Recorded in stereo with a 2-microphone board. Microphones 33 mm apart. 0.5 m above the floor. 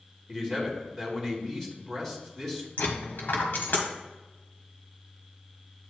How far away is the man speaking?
About 3 m.